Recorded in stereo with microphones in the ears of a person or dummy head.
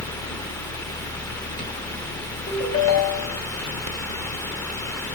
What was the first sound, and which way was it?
A ringtone, 70° left (ahead or behind).